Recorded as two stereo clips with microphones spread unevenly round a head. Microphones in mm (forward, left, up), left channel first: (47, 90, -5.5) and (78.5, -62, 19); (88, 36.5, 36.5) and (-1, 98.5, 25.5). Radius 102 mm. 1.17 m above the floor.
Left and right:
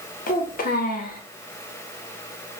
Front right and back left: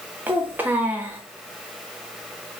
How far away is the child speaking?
About 0.8 m.